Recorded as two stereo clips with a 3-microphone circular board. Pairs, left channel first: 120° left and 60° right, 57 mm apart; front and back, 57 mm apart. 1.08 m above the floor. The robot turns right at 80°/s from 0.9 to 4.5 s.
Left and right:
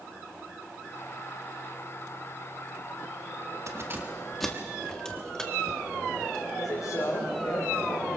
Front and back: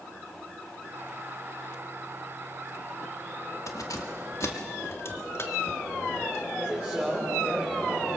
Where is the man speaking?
110° left, 4 m.